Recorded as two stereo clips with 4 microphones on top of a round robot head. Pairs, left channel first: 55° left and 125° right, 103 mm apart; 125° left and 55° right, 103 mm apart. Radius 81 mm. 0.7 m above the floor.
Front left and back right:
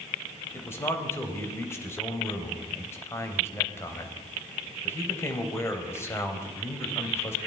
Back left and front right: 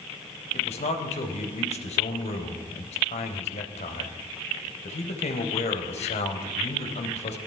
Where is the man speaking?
120° left, 4 m.